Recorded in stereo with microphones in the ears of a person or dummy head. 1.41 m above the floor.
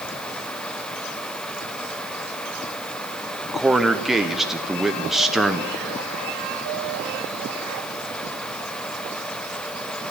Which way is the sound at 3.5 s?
5° right (ahead or behind).